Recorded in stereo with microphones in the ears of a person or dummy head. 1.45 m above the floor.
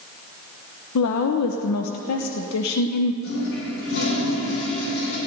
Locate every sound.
0.9 s a woman speaking: 80° left, 0.9 m
3.2 s a toilet flushing: 70° left (ahead or behind), 6.5 m